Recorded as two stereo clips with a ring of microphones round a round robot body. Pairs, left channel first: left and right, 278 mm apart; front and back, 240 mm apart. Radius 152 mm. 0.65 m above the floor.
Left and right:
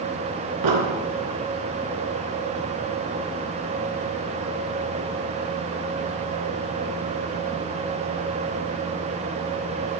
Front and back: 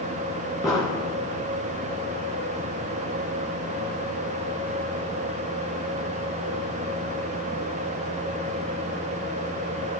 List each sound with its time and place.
0.6 s an explosion: 80° right, 2.5 m